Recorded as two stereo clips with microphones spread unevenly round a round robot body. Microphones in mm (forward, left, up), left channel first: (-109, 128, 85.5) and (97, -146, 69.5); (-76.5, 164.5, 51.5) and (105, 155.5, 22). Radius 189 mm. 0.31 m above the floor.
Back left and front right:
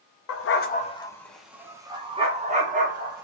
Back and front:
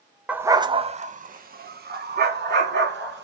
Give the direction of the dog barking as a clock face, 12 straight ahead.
9 o'clock.